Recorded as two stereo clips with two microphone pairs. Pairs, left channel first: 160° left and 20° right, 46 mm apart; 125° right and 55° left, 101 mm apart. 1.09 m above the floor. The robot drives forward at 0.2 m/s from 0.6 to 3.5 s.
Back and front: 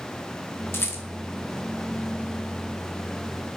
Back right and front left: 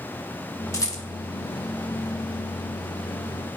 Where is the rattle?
Straight behind, 1.0 m.